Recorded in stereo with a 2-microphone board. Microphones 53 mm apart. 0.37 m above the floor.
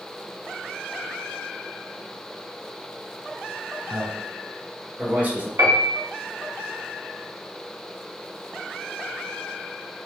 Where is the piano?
60° right (ahead or behind), 1.0 m.